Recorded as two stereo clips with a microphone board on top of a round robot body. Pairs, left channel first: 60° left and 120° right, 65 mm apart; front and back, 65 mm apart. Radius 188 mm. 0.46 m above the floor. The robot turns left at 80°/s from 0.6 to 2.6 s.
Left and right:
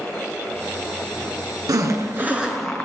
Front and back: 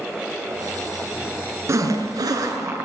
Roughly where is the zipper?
Behind right.